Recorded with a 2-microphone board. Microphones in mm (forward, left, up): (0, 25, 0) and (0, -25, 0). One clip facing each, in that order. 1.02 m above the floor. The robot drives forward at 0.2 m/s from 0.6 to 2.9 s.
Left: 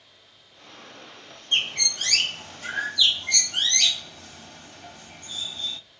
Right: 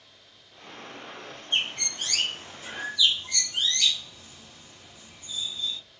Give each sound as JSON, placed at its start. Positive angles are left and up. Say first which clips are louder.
{"t": 1.5, "sound": "a bird", "louder": "left 3 dB", "side_deg": 85, "distance_m": 0.7}